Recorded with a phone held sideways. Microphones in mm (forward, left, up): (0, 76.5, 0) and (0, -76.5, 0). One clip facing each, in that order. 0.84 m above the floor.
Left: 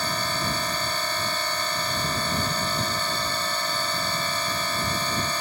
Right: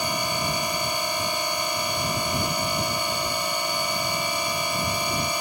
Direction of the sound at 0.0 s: 15° right (ahead or behind).